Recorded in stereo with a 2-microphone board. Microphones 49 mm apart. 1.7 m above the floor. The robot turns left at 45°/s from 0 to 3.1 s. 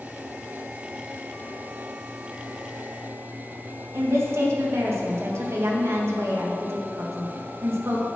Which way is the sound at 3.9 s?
65° right (ahead or behind).